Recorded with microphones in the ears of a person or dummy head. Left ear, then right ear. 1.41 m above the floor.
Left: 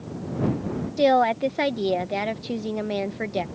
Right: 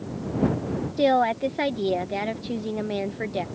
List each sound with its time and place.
1.0 s a woman speaking: 15° left (ahead or behind)